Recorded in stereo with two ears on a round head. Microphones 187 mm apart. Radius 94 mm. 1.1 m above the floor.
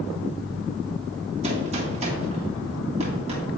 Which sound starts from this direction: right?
A gunshot, at 1.4 s.